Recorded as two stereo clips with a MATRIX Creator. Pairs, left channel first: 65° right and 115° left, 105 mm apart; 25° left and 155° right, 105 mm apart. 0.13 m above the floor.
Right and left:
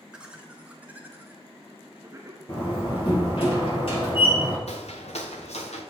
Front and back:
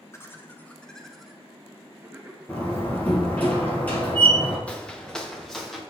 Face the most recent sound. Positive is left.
turn(degrees=-65)